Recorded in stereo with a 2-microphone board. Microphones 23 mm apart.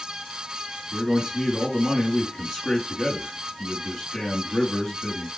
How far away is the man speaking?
About 2.5 m.